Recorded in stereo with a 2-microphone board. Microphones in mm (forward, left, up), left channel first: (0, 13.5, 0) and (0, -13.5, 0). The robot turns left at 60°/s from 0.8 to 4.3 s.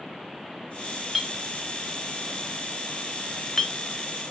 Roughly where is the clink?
Centre.